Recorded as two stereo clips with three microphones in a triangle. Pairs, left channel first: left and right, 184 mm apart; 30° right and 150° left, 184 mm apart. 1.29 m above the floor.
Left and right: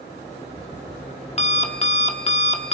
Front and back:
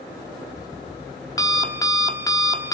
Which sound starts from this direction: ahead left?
An alarm clock, at 0.1 s.